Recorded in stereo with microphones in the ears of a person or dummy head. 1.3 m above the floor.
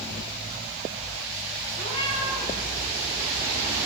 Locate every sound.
1.8 s a cat meowing: 35° left (ahead or behind), 3 m